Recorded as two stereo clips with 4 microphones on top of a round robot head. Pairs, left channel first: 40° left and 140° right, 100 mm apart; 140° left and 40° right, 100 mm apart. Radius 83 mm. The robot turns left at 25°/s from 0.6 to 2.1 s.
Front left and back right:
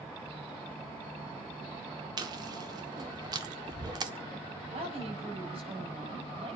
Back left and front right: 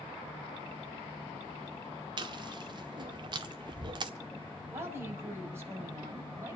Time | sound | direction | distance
2.2 | chewing | 90° right | 1.5 m
4.7 | a woman speaking | 110° right | 5.5 m